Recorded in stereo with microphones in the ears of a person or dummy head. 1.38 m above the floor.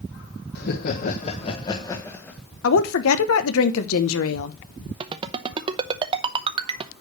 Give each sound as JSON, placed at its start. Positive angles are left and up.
{"t": 0.6, "sound": "laughter", "side_deg": 55, "distance_m": 1.2}
{"t": 2.6, "sound": "a woman speaking", "side_deg": 75, "distance_m": 1.1}
{"t": 5.0, "sound": "a ringtone", "side_deg": -25, "distance_m": 0.8}